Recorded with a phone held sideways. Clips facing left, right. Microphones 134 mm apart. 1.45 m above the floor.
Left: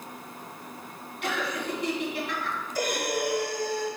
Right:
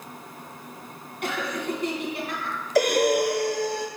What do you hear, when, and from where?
1.2 s laughter: 40° right (ahead or behind), 1.8 m
2.8 s breathing: 75° right (ahead or behind), 0.9 m